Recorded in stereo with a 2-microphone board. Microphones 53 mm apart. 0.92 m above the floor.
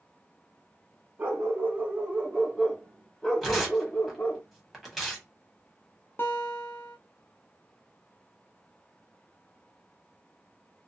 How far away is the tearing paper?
About 1.4 m.